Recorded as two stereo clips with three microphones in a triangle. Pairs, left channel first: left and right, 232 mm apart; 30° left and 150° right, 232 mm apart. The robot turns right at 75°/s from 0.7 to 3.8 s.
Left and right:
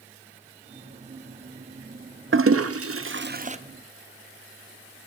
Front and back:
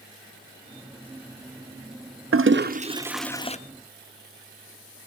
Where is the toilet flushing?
125° right, 0.5 m; by 3.6 s 30° right, 0.5 m.